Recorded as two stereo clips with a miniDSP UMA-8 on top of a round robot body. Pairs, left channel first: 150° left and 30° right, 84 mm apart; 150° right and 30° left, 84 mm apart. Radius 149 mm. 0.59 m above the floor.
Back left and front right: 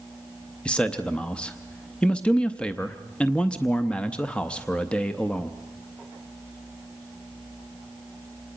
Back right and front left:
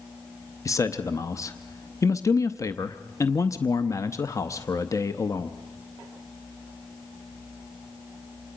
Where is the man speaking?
140° right, 0.8 m.